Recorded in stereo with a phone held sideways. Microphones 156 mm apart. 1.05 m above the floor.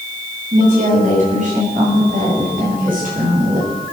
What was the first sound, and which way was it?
A woman speaking, 55° right (ahead or behind).